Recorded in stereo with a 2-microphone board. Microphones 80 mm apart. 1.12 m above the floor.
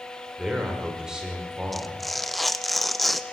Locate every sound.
0.4 s a man speaking: 10° right (ahead or behind), 5 m
1.7 s tearing paper: centre (ahead or behind), 0.8 m